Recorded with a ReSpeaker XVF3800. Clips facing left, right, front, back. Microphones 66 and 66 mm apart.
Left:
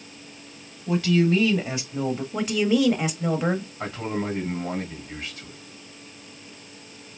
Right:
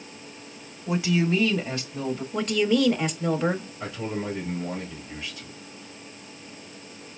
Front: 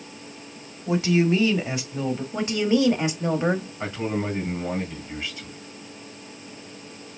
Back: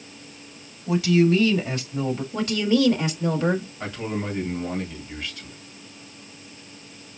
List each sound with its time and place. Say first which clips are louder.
0.9 s a woman speaking: left 3 dB, back 2 dB; 35° right, 1.1 m; by 2.2 s 90° left, 1.1 m
2.3 s a woman speaking: even, even; 20° left, 0.9 m
3.8 s a man speaking: left 2 dB, front 2 dB; 65° left, 2.5 m